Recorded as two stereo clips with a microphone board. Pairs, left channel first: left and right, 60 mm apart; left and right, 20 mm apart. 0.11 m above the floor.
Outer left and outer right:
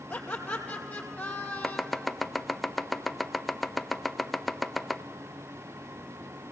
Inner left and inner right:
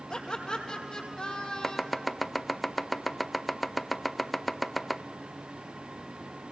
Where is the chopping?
Centre (ahead or behind), 0.5 m.